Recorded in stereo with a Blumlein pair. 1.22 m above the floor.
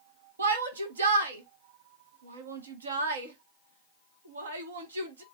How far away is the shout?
About 1.2 m.